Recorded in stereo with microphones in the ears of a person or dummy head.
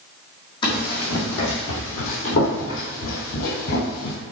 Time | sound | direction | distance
0.6 | running footsteps | 25° left (ahead or behind) | 3.5 m